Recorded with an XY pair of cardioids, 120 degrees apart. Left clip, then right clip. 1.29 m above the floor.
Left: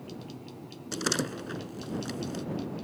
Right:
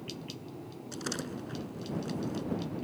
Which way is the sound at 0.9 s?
45° left.